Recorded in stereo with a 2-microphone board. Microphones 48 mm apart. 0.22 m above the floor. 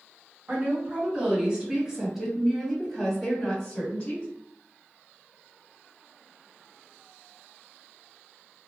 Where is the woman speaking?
30° right (ahead or behind), 2.0 m; by 4.3 s 30° left (ahead or behind), 1.8 m.